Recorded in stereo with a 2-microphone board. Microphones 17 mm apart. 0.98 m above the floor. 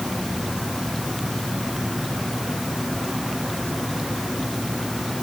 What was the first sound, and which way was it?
Only background noise.